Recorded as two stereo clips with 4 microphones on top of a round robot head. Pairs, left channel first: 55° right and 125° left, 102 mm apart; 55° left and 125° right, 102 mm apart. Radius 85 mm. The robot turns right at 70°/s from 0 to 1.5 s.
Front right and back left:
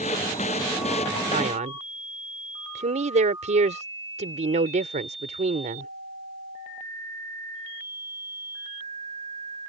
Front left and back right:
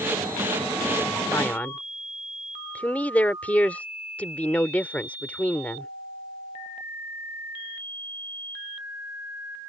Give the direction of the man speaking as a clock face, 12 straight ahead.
8 o'clock.